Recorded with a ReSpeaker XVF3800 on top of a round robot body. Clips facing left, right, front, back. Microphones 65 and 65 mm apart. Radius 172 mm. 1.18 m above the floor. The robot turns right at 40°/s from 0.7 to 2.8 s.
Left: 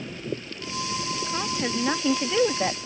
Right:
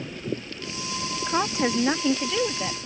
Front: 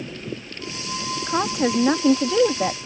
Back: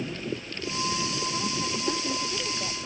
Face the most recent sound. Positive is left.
turn(degrees=30)